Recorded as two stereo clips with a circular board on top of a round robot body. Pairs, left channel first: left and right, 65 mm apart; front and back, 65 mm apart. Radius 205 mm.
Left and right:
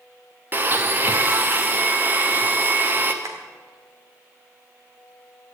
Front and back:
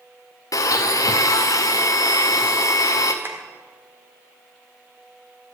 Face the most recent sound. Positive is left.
turn(degrees=-130)